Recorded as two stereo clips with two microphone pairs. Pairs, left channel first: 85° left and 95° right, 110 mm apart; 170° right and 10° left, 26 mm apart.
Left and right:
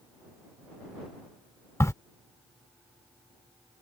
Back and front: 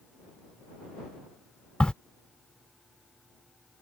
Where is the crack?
145° left.